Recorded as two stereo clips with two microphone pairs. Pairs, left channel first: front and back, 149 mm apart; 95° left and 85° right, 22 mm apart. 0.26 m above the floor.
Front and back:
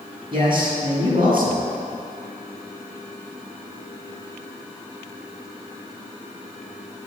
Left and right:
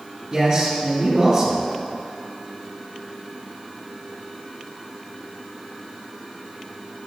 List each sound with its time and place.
0.3 s a man speaking: 130° right, 2 m